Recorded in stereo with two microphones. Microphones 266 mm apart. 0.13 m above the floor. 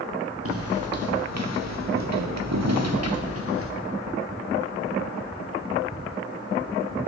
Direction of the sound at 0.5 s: 60° right (ahead or behind).